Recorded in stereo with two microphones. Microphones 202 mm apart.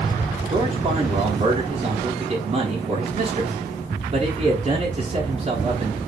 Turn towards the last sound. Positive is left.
turn(degrees=-35)  # may be behind; listen again after turning